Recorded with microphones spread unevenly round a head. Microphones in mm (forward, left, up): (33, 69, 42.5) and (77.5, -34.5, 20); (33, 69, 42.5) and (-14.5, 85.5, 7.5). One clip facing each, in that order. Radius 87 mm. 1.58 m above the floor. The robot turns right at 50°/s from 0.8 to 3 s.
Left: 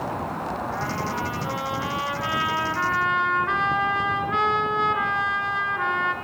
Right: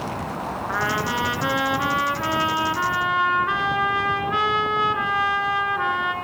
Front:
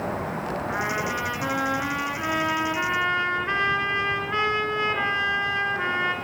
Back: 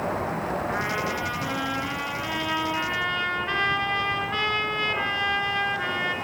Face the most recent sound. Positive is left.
turn(degrees=20)